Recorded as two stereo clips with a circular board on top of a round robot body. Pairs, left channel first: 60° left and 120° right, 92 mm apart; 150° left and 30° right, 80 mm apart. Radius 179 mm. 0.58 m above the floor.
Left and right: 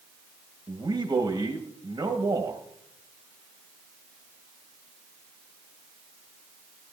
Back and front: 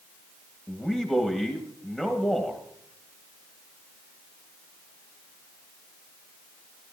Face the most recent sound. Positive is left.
turn(degrees=-115)